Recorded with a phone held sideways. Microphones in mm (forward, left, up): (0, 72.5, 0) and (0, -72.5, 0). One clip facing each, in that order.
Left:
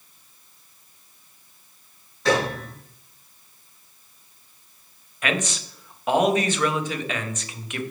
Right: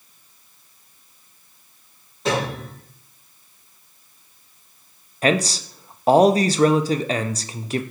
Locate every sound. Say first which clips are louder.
2.2 s a piano: left 1 dB; 20° right (ahead or behind), 3.5 m
5.2 s a man speaking: right 7 dB; 35° right (ahead or behind), 0.5 m